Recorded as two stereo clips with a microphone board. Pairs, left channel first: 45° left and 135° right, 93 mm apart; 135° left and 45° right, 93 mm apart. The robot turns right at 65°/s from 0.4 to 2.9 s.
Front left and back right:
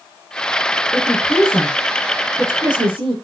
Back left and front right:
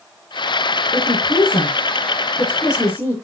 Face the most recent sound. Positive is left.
turn(degrees=-160)